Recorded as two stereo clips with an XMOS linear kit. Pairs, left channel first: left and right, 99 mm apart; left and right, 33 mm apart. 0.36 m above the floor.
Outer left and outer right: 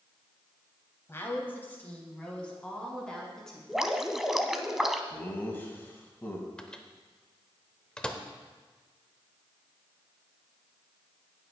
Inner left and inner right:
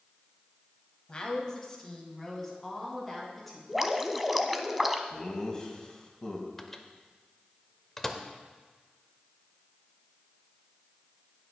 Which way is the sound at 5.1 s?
20° left (ahead or behind).